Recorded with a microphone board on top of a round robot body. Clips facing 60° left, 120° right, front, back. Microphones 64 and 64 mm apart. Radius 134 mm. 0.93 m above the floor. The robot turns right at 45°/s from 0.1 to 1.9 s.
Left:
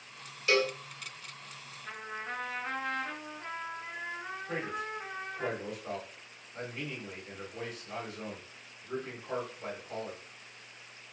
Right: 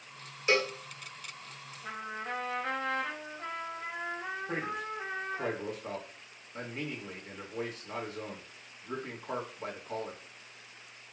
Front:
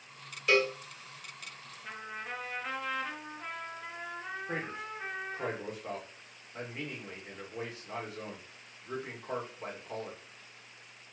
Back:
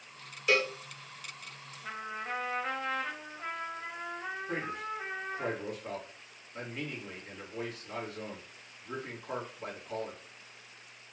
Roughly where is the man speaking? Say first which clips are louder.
Left 2 dB, back 2 dB; ahead right.